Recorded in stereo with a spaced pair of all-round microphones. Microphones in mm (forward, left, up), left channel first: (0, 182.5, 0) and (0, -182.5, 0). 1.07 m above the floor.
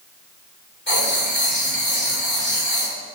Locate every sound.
0.9 s writing: 30° left (ahead or behind), 1.7 m